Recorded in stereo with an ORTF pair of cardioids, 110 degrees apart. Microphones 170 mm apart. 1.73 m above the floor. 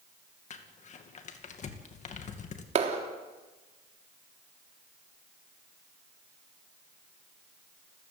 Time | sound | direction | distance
0.5 | crumpling | 45° left | 2.5 m
2.8 | a clap | 45° right | 3.5 m